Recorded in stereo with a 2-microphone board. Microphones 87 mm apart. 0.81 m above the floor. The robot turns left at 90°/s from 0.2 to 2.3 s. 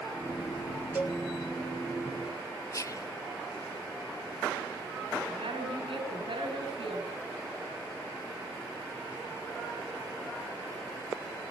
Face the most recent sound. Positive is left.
turn(degrees=-85)